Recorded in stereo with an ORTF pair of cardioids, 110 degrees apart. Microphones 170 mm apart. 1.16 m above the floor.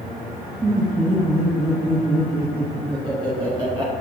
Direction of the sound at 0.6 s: 15° right.